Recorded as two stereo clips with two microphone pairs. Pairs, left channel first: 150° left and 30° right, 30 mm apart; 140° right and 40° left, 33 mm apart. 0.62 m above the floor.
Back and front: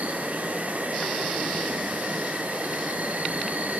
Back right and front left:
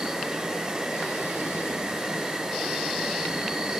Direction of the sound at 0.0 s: 25° right.